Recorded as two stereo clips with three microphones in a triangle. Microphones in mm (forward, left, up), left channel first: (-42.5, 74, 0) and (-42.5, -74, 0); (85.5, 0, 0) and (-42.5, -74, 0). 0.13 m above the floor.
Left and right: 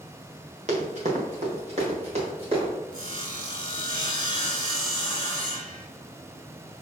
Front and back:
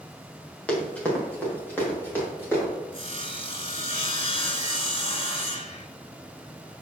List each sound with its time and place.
0.7 s running footsteps: 50° right, 3 m; by 2.7 s 45° right, 5 m
2.9 s sawing: 50° left, 1.3 m